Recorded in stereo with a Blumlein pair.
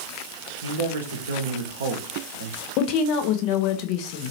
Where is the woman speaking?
40° left, 0.7 m.